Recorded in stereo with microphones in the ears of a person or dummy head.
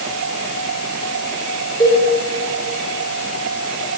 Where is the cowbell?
30° left (ahead or behind), 2.5 m.